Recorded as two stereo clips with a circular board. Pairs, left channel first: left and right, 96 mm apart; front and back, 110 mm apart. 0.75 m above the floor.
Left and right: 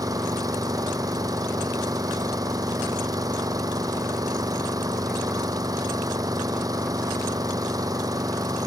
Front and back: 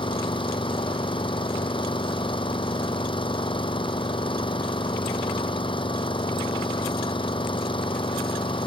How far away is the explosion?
No explosion in this recording.